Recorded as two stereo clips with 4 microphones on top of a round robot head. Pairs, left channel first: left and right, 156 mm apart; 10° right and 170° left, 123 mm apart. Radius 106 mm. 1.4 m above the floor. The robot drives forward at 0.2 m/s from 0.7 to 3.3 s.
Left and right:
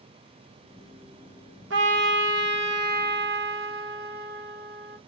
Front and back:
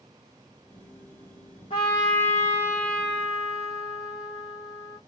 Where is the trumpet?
75° right, 0.8 m; by 5.0 s 100° right, 0.8 m.